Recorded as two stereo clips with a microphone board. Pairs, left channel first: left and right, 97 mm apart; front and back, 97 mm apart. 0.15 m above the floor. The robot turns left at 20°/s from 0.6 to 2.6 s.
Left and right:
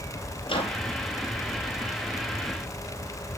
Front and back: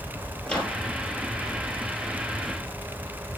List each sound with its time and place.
0.5 s a microwave: 75° left, 2.5 m